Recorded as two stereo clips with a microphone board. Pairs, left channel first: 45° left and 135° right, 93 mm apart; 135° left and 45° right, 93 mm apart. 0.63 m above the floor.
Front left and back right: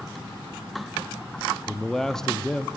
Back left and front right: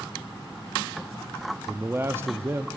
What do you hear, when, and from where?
1.7 s a man speaking: 30° right, 0.6 m